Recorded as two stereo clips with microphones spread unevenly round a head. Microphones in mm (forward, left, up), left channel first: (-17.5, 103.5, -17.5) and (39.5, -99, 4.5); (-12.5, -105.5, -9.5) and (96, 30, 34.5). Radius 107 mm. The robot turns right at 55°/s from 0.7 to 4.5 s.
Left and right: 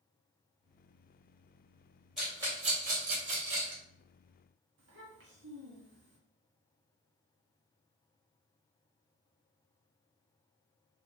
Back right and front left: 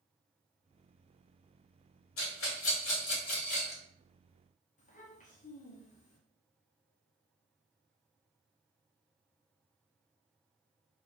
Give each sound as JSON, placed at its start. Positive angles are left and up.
{"t": 2.2, "sound": "a rattle", "azimuth_deg": -160, "distance_m": 2.0}
{"t": 4.8, "sound": "a child speaking", "azimuth_deg": -80, "distance_m": 1.5}